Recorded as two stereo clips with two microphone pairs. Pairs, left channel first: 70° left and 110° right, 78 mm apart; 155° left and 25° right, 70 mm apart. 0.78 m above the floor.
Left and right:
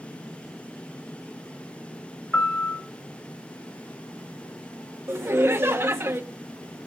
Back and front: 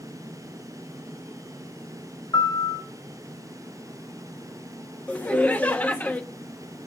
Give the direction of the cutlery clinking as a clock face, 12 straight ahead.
I don't hear cutlery clinking.